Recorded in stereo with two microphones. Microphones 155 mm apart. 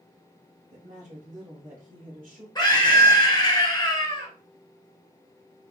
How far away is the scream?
About 1.2 m.